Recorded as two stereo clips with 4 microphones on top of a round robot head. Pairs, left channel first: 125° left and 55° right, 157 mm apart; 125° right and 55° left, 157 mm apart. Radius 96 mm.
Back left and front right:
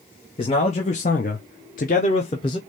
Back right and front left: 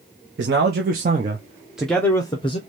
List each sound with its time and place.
0.4 s a man speaking: 70° left, 1.0 m; by 2.6 s 175° right, 0.9 m